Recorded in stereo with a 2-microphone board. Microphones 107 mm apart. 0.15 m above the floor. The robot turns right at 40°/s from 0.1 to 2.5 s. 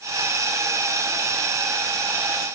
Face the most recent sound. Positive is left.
No sound to turn to.